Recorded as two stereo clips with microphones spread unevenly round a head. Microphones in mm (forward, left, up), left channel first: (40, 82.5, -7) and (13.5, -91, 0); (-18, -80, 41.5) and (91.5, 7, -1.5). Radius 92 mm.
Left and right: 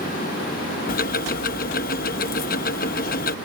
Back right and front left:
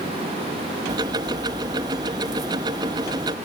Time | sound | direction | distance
0.9 | ticking | 115° left | ?